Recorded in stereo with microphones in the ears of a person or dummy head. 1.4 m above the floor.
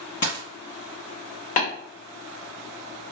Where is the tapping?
45° left (ahead or behind), 1.2 m.